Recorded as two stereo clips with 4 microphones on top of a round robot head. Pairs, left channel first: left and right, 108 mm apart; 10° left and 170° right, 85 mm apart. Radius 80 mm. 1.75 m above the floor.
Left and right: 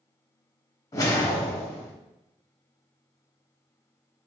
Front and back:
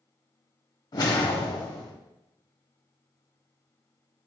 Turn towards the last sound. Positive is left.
turn(degrees=35)